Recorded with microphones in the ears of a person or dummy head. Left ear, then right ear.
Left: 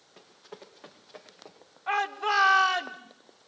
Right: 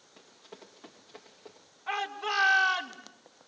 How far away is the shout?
About 3.5 m.